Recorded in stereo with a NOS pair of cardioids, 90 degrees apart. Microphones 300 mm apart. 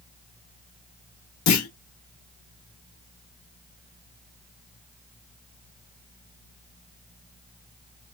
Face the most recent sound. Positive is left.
turn(degrees=60)